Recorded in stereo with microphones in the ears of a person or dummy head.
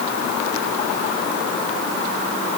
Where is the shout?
No shout in this recording.